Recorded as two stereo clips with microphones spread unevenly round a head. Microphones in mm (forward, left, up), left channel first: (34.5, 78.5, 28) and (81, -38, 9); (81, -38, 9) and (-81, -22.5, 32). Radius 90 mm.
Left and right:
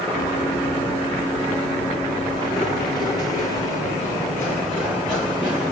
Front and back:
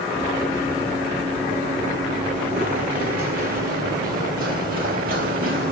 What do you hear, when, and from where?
0.1 s running footsteps: 105° left, 1.8 m; by 5.7 s 165° right, 3.5 m